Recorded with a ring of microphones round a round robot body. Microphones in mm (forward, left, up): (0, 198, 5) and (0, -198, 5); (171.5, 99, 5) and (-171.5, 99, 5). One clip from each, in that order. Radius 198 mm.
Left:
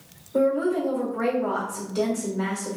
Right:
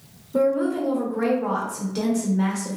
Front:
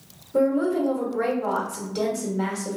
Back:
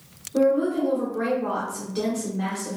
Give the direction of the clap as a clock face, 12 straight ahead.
I don't hear a clap.